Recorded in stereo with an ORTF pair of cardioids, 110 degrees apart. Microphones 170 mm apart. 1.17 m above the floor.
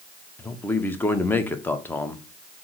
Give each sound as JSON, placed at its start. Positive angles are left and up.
{"t": 0.4, "sound": "a man speaking", "azimuth_deg": 10, "distance_m": 0.7}